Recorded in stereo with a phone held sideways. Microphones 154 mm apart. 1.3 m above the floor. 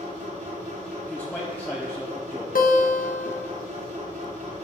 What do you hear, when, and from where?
0.0 s a machine running: 55° right (ahead or behind), 3.5 m
1.1 s a man speaking: 10° left (ahead or behind), 0.9 m
2.5 s a guitar: 65° left (ahead or behind), 0.9 m